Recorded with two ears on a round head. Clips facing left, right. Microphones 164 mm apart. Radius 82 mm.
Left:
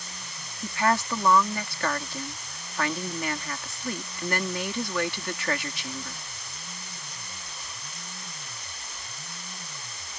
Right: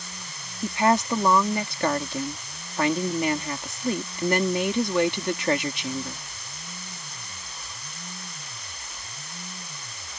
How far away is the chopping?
I don't hear chopping.